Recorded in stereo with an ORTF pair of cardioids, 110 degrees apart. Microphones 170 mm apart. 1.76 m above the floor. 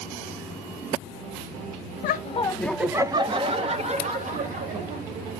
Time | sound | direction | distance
2.0 | laughter | 60° left | 0.7 m